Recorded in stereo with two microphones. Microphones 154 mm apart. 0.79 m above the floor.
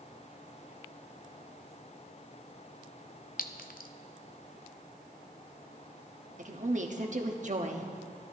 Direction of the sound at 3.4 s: 65° left (ahead or behind).